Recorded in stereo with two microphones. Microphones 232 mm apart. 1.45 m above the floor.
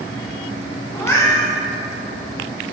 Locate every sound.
0.9 s a cat meowing: 10° left (ahead or behind), 0.7 m